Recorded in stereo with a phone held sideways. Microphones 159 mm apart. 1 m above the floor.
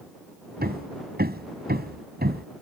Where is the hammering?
80° right.